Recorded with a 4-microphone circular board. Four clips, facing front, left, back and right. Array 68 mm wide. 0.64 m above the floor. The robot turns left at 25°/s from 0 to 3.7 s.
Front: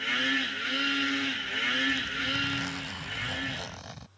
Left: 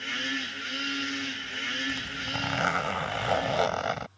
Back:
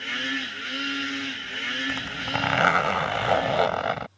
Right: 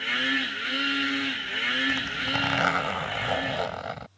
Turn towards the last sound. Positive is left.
turn(degrees=165)